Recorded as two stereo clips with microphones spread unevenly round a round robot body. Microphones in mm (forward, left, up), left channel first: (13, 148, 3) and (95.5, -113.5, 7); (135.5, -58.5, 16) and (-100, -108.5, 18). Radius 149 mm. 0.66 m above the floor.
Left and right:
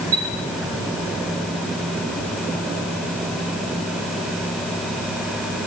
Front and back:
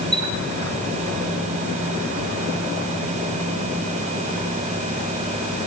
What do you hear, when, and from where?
0.1 s a chime: 75° right, 7 m